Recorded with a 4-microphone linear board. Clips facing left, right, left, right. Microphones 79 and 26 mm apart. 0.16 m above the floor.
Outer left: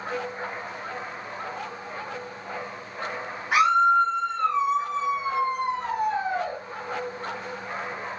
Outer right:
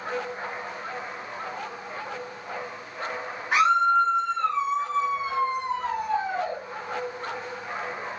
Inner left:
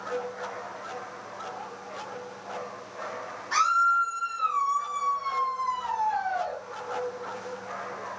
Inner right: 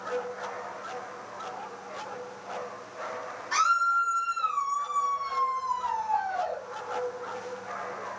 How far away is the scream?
About 1.6 m.